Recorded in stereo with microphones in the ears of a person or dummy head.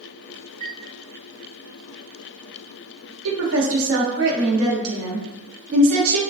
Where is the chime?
30° right (ahead or behind), 1.7 m.